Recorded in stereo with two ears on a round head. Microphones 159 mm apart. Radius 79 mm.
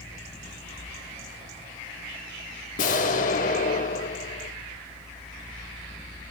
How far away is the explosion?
About 1.5 m.